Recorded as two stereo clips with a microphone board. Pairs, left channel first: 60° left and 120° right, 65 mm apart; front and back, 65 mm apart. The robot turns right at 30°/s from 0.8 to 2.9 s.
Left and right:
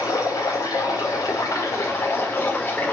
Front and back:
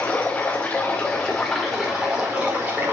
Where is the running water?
65° left, 6 m; by 2.9 s 130° left, 6 m.